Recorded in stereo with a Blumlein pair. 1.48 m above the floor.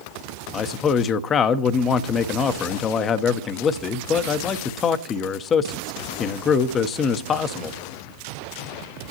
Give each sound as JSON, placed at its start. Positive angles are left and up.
{"t": 0.5, "sound": "a man speaking", "azimuth_deg": 25, "distance_m": 1.0}